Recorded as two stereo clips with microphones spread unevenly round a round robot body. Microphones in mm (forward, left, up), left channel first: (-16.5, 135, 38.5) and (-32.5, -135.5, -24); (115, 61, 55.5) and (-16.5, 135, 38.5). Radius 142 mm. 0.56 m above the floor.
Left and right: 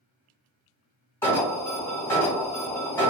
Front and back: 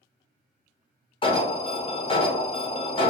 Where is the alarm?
10° right, 1.1 m.